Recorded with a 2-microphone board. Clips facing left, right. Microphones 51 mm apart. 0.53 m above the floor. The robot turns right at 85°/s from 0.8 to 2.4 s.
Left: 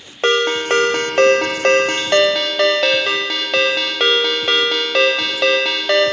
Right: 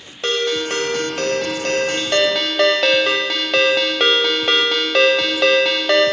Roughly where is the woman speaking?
I don't hear a woman speaking.